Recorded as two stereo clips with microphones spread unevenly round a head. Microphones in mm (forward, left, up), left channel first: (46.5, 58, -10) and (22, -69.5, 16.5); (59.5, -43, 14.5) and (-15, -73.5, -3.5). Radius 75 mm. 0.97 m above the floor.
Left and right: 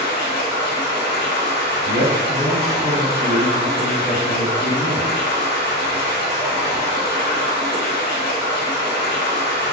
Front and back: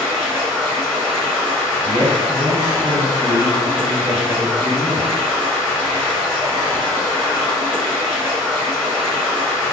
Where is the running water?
140° left, 1.3 m.